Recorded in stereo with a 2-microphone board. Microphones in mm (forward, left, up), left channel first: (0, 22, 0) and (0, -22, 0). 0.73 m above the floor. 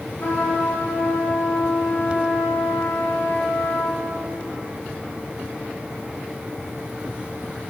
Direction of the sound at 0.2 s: 45° left (ahead or behind).